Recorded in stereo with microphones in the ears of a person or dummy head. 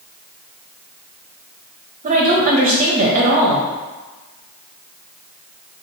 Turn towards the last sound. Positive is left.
turn(degrees=-35)  # may be behind; listen again after turning